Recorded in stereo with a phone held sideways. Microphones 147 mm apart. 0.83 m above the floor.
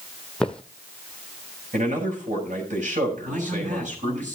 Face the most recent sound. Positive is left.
turn(degrees=-55)  # may be behind; listen again after turning